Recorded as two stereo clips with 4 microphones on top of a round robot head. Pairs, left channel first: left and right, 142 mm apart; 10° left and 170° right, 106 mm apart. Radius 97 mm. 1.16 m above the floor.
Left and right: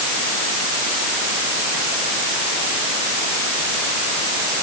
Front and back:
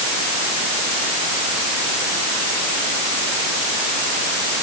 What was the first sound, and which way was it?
Only background noise.